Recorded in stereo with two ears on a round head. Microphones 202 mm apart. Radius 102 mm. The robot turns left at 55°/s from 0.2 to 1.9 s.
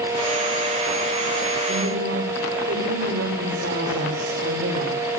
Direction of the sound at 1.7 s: 65° right (ahead or behind).